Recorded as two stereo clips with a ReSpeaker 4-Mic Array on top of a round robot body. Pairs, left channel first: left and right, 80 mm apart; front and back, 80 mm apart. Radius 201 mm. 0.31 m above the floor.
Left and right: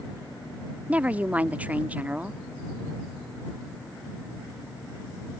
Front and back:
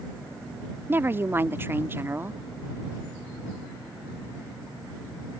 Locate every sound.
0.9 s a woman speaking: 145° right